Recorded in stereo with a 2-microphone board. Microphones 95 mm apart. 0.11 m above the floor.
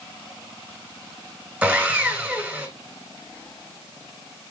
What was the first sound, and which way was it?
Sawing, 15° right (ahead or behind).